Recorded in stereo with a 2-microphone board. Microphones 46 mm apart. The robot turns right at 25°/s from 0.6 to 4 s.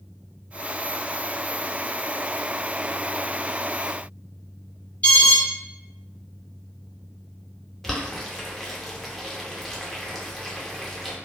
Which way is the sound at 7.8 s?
5° left (ahead or behind).